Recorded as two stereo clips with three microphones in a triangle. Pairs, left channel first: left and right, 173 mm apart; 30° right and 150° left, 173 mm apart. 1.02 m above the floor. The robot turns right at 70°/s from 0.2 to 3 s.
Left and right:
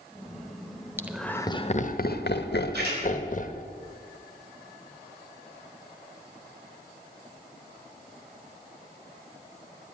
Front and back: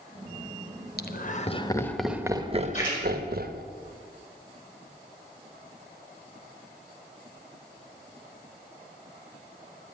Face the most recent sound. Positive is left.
turn(degrees=-60)